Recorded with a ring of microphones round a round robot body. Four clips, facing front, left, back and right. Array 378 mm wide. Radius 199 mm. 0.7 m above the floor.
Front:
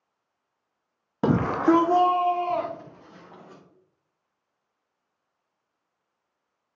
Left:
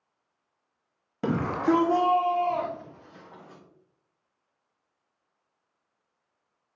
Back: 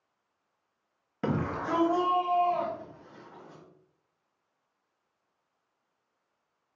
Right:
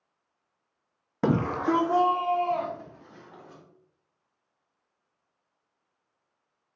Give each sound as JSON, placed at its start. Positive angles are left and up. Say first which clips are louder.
{"t": 1.2, "sound": "a shout", "louder": "even, front 10 dB", "azimuth_deg": -40, "distance_m": 0.5}